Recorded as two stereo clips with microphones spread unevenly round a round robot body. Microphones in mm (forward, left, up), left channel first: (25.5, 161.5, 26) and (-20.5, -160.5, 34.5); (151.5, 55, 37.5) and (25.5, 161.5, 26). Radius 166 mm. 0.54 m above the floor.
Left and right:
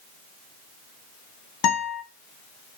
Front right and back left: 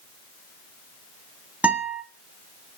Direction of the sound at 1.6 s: 55° left.